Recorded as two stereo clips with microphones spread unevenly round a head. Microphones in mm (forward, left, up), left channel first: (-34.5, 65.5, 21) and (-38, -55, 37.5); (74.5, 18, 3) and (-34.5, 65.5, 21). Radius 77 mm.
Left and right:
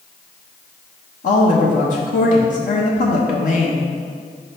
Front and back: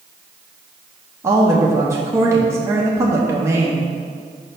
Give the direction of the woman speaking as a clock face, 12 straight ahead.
9 o'clock.